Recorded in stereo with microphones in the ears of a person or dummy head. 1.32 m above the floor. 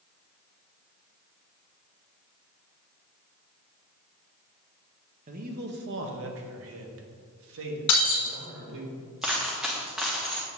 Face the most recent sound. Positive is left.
turn(degrees=0)  # may be behind; listen again after turning